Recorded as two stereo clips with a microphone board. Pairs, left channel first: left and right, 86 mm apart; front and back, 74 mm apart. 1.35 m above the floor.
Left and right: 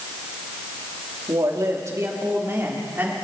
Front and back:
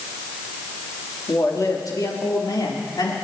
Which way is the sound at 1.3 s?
45° right.